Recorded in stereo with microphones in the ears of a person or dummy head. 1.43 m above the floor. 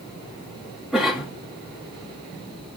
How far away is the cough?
About 3 m.